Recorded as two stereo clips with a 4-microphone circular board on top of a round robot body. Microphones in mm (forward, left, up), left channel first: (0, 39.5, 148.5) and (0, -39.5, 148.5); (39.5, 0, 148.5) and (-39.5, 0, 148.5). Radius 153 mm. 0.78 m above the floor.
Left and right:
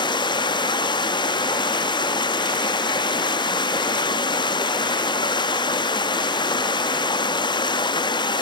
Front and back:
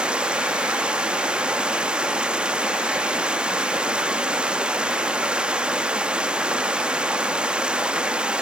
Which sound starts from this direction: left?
Running water, at 0.0 s.